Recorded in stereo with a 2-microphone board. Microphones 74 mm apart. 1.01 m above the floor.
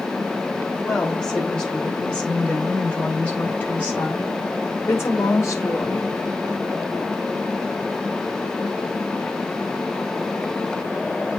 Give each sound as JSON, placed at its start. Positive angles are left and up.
{"t": 0.8, "sound": "a woman speaking", "side_deg": 5, "distance_m": 5.0}